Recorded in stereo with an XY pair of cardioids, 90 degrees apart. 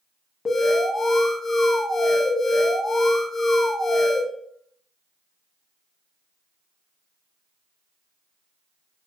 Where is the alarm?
30° left, 0.9 m.